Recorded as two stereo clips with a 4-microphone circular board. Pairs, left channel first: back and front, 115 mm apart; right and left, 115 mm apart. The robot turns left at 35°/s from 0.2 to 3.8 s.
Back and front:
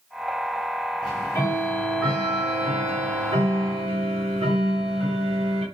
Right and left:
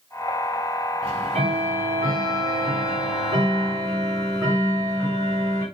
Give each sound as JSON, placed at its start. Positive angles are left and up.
{"t": 1.0, "sound": "ticking", "azimuth_deg": 130, "distance_m": 6.5}